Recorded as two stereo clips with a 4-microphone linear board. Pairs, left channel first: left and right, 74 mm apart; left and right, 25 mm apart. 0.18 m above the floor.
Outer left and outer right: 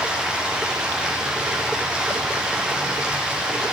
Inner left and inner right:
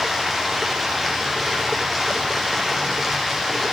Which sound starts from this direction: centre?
Running water, at 0.0 s.